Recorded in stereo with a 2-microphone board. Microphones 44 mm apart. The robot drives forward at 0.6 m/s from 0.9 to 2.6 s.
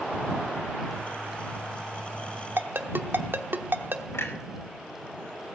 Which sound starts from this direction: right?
A ringtone, at 2.6 s.